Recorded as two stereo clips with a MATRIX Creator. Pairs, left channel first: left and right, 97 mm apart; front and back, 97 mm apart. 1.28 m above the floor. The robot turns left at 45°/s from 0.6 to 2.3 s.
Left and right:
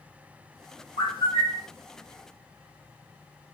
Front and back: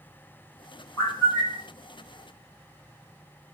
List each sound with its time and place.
1.0 s a bird: 60° left, 1.8 m; by 1.7 s 30° left, 1.8 m